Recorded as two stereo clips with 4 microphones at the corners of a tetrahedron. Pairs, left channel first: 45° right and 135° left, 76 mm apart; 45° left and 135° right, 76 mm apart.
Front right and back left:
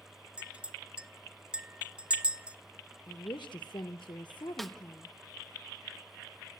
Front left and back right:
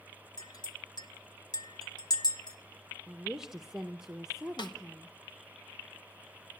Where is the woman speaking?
55° right, 0.8 m.